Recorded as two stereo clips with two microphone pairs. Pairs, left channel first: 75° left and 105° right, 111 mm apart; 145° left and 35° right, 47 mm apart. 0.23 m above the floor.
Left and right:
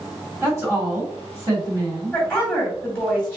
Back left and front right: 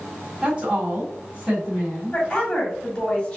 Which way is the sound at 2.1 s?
155° left.